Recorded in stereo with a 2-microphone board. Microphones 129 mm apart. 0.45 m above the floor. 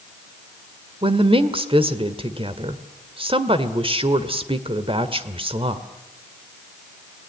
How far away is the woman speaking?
About 1.7 m.